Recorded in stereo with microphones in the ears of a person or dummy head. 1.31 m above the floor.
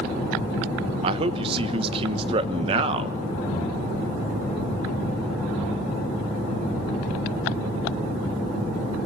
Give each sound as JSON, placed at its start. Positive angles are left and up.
{"t": 1.0, "sound": "a man speaking", "side_deg": -30, "distance_m": 1.0}